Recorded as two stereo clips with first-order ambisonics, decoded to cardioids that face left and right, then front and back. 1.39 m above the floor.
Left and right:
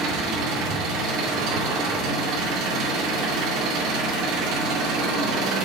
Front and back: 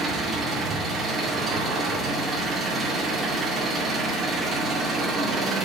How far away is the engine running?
About 2 m.